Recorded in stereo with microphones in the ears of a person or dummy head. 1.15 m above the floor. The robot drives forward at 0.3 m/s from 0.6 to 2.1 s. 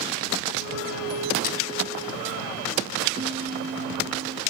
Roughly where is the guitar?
Right.